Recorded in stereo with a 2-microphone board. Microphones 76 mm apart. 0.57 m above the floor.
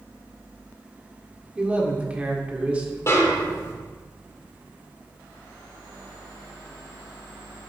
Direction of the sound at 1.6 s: 15° right (ahead or behind).